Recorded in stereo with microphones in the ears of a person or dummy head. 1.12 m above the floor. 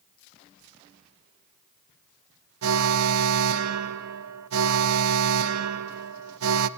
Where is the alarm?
80° right, 0.7 m.